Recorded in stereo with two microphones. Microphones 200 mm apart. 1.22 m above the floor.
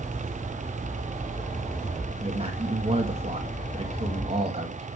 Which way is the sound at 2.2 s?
30° right (ahead or behind).